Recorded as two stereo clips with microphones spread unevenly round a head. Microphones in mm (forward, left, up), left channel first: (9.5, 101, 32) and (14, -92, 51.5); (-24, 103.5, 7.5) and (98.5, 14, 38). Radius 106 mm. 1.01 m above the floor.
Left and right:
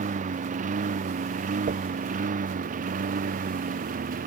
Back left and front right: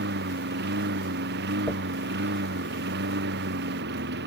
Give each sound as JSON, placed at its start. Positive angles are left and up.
{"t": 0.0, "sound": "a lawn mower", "azimuth_deg": -35}
{"t": 1.7, "sound": "a dropped coin", "azimuth_deg": -125}